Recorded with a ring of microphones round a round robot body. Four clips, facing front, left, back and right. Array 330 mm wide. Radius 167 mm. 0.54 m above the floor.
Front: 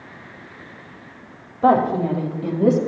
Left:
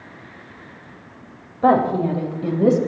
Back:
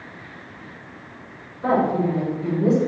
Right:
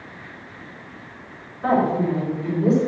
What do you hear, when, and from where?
1.6 s a woman speaking: 50° left, 3 m; by 2.8 s 60° left, 3.5 m